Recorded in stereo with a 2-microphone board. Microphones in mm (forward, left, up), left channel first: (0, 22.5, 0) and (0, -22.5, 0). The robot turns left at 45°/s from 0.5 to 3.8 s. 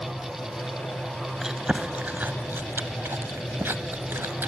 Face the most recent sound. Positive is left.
turn(degrees=-60)  # may be behind; listen again after turning